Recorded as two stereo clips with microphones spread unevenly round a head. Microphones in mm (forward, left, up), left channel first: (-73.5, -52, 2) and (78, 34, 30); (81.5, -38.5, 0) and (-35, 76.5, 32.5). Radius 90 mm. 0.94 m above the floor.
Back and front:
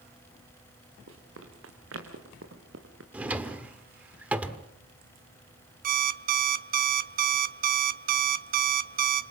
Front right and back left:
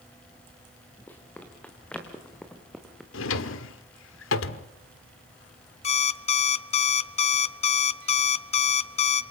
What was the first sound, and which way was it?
Running footsteps, 35° left.